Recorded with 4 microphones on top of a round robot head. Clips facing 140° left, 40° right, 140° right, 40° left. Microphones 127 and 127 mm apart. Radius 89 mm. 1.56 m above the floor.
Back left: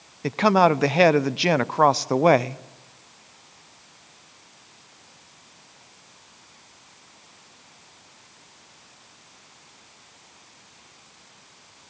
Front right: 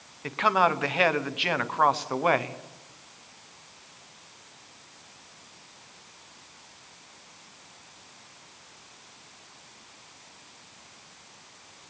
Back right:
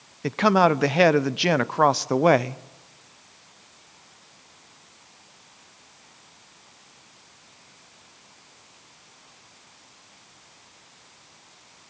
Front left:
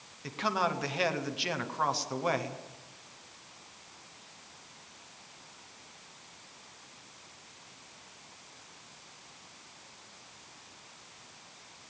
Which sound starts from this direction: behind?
A man speaking, at 0.2 s.